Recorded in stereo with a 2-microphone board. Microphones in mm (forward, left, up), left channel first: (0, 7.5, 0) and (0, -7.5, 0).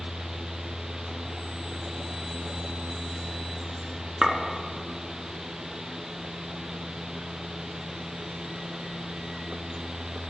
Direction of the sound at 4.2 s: 30° right (ahead or behind).